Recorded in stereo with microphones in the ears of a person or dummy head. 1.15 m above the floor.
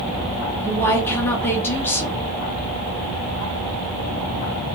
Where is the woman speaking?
5° left (ahead or behind), 2.5 m.